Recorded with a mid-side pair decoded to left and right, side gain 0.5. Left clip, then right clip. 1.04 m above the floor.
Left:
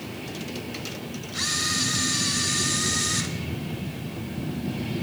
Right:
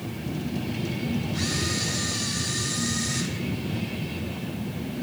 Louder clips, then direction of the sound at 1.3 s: Left 5 dB; 40° left.